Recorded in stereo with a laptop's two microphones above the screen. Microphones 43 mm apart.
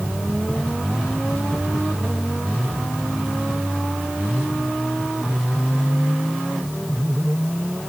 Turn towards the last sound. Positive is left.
No sound to turn to.